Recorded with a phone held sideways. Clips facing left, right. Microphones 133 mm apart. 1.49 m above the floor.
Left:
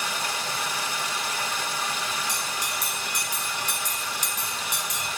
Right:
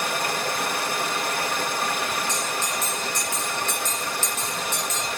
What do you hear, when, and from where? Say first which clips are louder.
0.0 s running water: right 5 dB; 60° right (ahead or behind), 2 m
2.3 s a bell: right 4 dB; 15° left (ahead or behind), 8.5 m